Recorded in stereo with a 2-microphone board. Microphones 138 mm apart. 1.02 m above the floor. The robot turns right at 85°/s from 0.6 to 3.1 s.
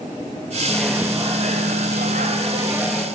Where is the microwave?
165° left, 0.6 m; by 3.0 s 10° left, 0.6 m.